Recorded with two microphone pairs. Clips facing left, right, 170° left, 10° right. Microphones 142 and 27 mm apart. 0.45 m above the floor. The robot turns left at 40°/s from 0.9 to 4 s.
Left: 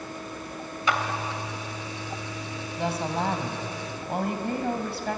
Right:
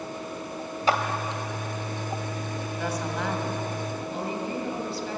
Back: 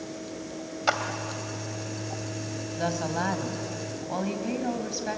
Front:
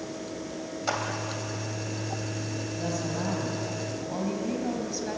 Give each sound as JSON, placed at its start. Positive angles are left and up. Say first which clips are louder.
{"t": 0.9, "sound": "a clap", "louder": "right 3 dB, back 4 dB", "azimuth_deg": -135, "distance_m": 2.5}
{"t": 2.8, "sound": "a woman speaking", "louder": "left 4 dB, back 4 dB", "azimuth_deg": 160, "distance_m": 3.0}